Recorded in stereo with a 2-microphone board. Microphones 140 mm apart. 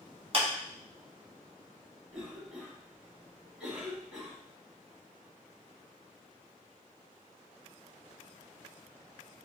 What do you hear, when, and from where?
0.3 s a clap: 45° right (ahead or behind), 1.1 m
2.1 s a cough: 5° right (ahead or behind), 1.1 m